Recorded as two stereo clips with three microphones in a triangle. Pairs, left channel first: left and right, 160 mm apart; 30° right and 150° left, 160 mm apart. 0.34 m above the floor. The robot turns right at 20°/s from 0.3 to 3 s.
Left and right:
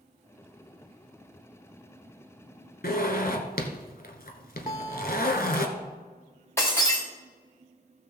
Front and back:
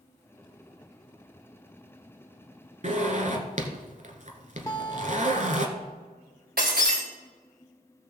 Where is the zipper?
110° left, 1.2 m.